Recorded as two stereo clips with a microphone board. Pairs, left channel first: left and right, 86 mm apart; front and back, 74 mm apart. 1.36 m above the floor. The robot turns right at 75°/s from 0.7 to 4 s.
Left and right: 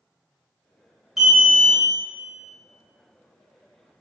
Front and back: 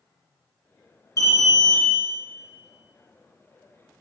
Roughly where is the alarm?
Ahead.